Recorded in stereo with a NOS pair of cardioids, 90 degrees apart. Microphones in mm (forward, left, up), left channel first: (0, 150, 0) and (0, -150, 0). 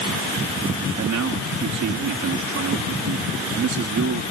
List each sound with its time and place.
1.0 s a man speaking: 65° right